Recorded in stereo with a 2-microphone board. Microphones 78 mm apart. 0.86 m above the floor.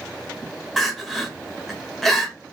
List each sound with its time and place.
0.8 s crying: centre (ahead or behind), 1.0 m